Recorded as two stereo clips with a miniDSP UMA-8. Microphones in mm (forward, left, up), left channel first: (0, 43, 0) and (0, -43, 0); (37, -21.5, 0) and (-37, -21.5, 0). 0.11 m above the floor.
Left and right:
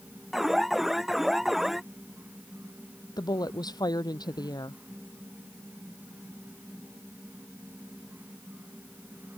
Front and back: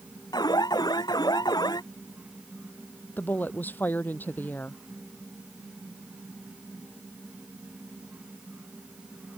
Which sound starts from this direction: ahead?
An alarm, at 0.3 s.